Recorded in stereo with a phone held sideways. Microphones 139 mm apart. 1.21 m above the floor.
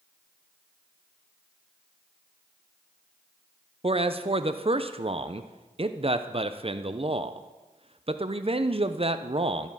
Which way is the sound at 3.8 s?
45° right (ahead or behind).